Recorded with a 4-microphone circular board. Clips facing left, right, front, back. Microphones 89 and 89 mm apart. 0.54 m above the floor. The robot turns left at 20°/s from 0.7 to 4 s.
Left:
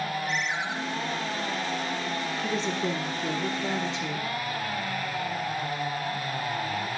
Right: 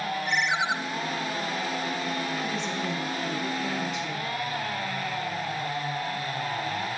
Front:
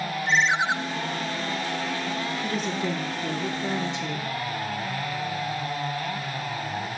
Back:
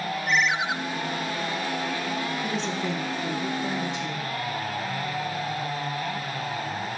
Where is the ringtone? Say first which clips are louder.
Right 4 dB, front 2 dB; 65° right, 0.5 m.